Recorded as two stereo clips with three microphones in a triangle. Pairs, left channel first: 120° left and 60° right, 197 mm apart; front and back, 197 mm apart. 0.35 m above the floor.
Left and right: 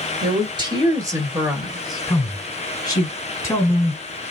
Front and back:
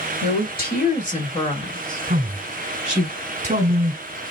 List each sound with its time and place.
0.2 s a woman speaking: 5° right, 1.9 m; by 3.1 s 120° left, 1.2 m
2.1 s a man speaking: 175° right, 1.3 m